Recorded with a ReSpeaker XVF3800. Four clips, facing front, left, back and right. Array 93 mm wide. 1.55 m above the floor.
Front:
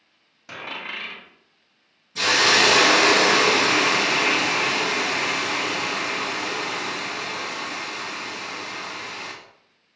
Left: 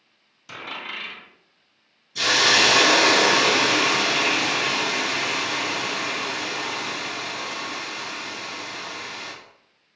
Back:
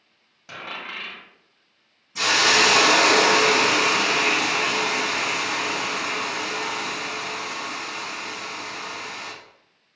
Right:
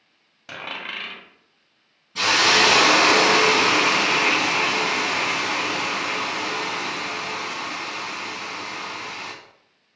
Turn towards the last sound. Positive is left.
turn(degrees=-105)